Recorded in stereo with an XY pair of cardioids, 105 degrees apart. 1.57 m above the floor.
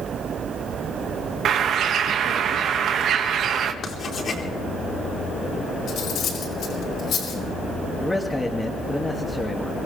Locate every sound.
1.4 s a bird: 65° right, 2 m
3.8 s writing: 50° left, 4 m
5.9 s cutlery clinking: 70° left, 5 m
8.0 s a man speaking: 10° left, 2.5 m